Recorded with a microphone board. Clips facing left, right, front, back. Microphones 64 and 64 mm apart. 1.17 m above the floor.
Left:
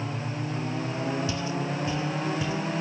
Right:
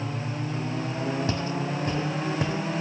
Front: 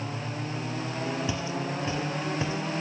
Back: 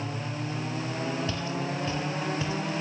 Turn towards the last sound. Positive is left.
turn(degrees=-65)